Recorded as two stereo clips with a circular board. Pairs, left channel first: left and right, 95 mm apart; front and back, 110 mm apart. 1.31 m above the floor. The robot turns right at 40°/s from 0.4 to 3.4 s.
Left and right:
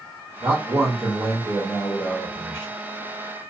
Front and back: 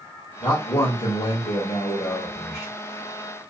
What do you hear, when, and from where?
0.4 s a man speaking: 40° right, 0.9 m; by 2.7 s 55° left, 0.9 m